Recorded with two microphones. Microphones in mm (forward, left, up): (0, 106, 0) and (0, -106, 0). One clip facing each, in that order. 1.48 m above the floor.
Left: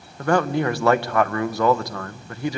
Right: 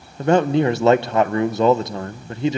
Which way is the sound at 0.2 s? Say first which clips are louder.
Right 4 dB; 20° right (ahead or behind).